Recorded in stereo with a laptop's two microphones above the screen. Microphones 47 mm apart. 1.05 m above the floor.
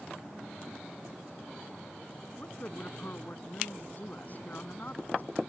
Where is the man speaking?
40° left (ahead or behind).